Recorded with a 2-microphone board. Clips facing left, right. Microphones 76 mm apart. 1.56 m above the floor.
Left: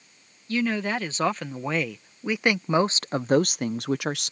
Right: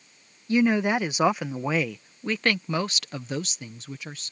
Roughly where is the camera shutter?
No camera shutter in this recording.